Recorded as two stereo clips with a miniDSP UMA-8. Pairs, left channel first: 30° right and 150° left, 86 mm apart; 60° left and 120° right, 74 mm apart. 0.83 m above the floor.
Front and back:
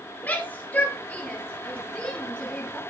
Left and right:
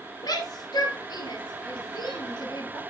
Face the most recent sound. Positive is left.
turn(degrees=50)